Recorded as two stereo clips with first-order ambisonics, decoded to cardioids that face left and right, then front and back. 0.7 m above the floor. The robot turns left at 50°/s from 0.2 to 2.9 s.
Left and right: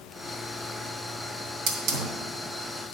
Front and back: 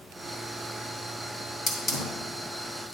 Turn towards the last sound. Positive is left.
turn(degrees=-115)